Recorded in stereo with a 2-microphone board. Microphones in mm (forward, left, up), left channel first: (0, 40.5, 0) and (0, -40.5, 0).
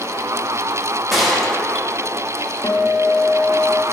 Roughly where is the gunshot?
Centre.